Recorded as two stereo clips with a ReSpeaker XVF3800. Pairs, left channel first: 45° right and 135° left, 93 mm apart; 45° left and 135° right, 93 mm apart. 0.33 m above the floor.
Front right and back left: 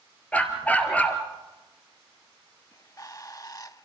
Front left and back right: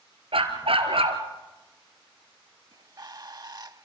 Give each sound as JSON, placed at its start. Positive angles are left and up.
{"t": 0.3, "sound": "a dog barking", "azimuth_deg": -120, "distance_m": 2.5}
{"t": 2.7, "sound": "a bird", "azimuth_deg": -95, "distance_m": 0.7}